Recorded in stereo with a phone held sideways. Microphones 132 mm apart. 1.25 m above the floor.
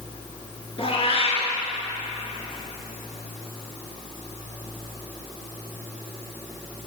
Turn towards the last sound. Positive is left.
turn(degrees=50)  # may be behind; listen again after turning